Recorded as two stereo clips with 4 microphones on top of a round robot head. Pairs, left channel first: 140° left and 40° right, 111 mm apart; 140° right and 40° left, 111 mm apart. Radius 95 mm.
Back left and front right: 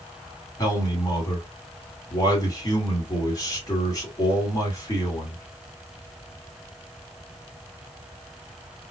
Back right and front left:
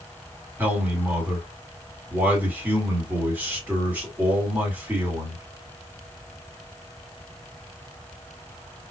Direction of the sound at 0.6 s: 105° left.